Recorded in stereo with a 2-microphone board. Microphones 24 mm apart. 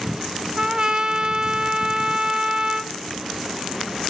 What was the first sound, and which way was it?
A trumpet, 30° right (ahead or behind).